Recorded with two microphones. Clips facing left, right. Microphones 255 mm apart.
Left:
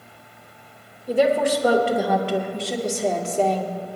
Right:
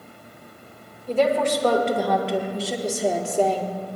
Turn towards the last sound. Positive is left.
turn(degrees=-20)  # may be behind; listen again after turning